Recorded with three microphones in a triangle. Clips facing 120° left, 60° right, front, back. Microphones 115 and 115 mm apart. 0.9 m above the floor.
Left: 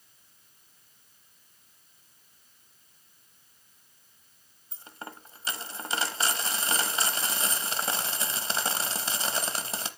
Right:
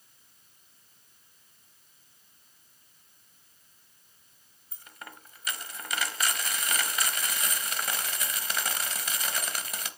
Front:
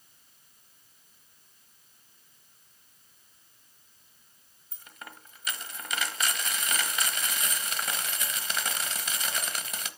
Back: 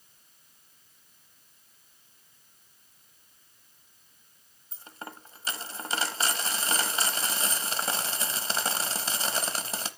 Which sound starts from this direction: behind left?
A dropped coin, at 4.7 s.